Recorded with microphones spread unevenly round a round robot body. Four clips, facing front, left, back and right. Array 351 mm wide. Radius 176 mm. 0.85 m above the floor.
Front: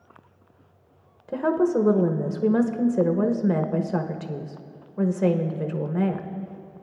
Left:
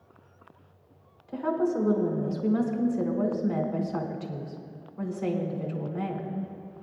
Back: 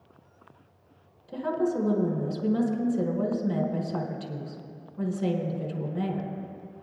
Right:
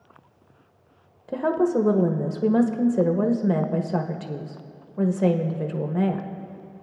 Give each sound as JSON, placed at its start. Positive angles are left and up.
{"t": 1.3, "sound": "a woman speaking", "azimuth_deg": -50, "distance_m": 0.9}